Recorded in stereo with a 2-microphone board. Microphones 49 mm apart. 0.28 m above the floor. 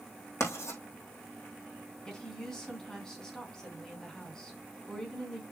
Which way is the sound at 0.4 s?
65° left (ahead or behind).